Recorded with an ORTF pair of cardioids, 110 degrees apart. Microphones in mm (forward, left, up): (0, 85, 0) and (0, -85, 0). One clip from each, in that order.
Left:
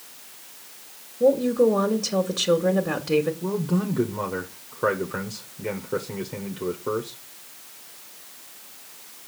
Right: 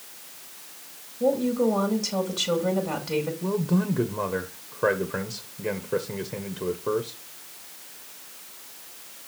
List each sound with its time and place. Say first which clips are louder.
1.2 s a woman speaking: left 5 dB; 30° left, 1.9 m
3.4 s a man speaking: even; straight ahead, 1.1 m